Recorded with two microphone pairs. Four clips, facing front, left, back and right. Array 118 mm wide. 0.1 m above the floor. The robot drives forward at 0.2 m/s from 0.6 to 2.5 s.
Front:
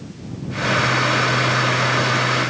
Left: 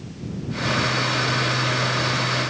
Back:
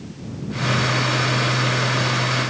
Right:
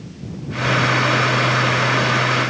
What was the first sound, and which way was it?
Only background noise.